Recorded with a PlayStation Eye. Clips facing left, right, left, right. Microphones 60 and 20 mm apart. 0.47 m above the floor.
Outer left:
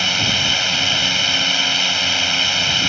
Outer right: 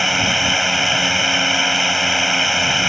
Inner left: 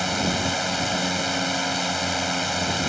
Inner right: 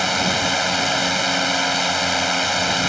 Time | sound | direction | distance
0.0 | a drone | 20° right (ahead or behind) | ?